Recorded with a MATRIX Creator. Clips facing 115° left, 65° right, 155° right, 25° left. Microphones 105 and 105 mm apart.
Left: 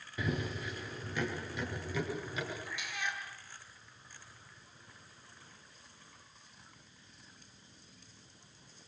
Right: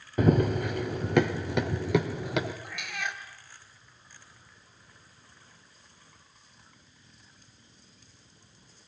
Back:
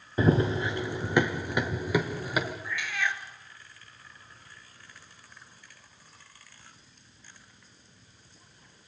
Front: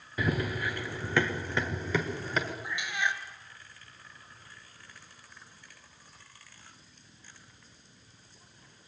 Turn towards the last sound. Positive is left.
turn(degrees=-45)